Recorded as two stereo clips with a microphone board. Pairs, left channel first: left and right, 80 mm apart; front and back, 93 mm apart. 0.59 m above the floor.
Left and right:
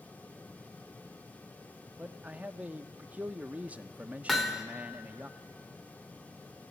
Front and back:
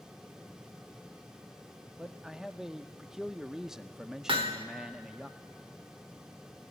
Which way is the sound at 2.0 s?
110° right.